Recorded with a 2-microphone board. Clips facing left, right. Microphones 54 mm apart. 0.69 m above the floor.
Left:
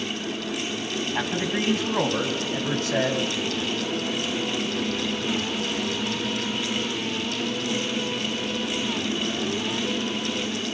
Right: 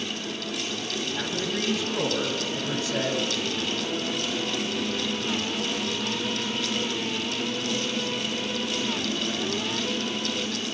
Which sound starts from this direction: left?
A man speaking, at 1.1 s.